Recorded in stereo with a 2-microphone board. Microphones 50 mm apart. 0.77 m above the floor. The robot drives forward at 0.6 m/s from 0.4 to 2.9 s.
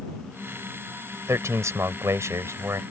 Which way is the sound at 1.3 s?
80° right.